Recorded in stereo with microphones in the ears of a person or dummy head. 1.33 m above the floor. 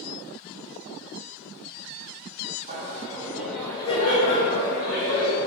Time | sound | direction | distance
2.7 | laughter | 45° right (ahead or behind) | 0.8 m